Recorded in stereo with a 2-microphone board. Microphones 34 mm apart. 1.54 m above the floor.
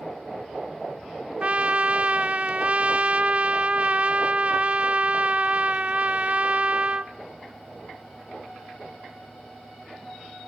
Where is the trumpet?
40° right (ahead or behind), 0.7 m.